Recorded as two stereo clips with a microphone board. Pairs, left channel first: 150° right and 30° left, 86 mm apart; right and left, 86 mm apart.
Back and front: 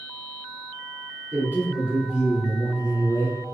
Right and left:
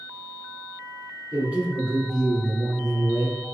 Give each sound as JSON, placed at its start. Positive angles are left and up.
{"t": 1.3, "sound": "a man speaking", "azimuth_deg": 45, "distance_m": 1.7}